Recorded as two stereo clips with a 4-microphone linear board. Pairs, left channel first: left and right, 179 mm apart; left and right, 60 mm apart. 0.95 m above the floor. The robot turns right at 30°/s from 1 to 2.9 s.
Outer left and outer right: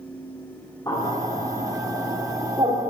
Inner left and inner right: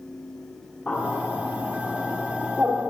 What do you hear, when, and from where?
0.9 s a bird: 20° left (ahead or behind), 1.4 m; by 2.9 s 35° right (ahead or behind), 1.4 m